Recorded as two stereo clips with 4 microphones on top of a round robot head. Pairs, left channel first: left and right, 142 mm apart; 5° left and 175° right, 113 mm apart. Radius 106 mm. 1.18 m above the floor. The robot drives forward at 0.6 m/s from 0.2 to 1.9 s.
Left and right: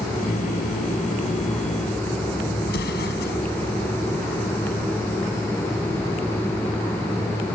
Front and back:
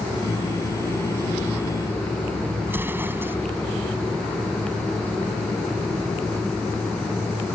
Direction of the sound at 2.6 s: 115° left.